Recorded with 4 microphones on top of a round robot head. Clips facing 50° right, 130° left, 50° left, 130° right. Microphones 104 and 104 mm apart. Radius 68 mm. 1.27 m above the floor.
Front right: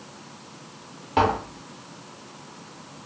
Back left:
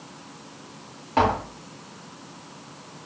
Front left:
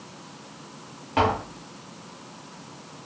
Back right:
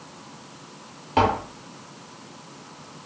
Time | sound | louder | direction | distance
1.2 | tapping | even, back right 2 dB | 120° right | 0.7 m